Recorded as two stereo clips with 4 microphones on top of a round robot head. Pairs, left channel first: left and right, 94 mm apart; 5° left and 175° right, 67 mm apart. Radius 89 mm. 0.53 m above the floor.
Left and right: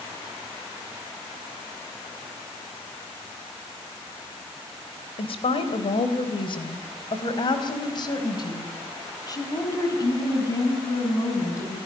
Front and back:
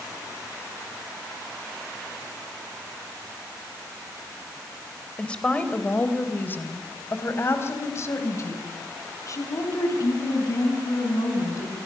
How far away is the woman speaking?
About 3 m.